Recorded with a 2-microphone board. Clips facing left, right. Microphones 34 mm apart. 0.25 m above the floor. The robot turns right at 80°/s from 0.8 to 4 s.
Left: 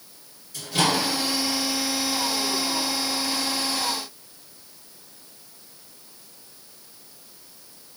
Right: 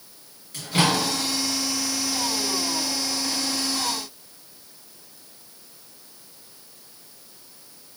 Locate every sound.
0.5 s a microwave: 50° right (ahead or behind), 1.7 m; by 1.0 s 60° right (ahead or behind), 1.7 m